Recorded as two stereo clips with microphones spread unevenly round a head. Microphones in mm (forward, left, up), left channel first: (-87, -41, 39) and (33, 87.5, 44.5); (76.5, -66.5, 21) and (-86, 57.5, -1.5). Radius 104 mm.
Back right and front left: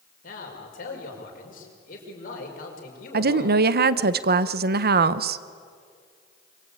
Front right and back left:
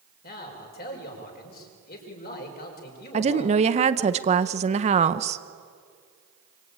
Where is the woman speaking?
80° left, 0.8 m.